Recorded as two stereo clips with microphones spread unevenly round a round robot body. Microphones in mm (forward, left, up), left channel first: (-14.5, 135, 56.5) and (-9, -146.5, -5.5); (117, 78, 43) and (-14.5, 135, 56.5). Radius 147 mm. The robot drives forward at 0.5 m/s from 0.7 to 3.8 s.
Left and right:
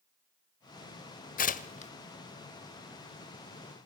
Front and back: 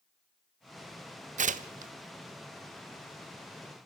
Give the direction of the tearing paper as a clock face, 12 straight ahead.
7 o'clock.